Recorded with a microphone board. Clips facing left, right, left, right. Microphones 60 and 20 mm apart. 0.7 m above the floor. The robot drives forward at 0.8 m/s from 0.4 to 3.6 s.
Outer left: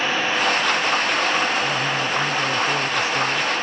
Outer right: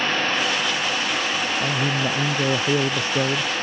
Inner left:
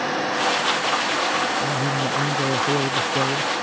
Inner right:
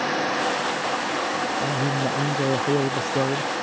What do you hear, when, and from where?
1.6 s a man speaking: 30° right (ahead or behind); by 3.5 s 35° right (ahead or behind)